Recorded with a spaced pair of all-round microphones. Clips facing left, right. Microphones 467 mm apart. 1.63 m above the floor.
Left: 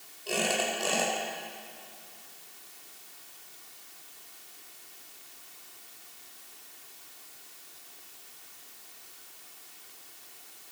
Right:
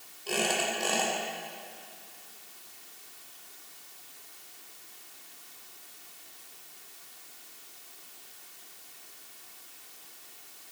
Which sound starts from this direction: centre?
A squeak, at 0.3 s.